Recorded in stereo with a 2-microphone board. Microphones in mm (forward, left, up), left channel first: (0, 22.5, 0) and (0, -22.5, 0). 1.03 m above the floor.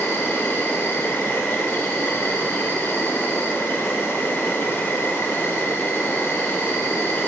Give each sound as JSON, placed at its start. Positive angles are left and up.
{"t": 0.0, "sound": "an insect", "side_deg": 65, "distance_m": 2.0}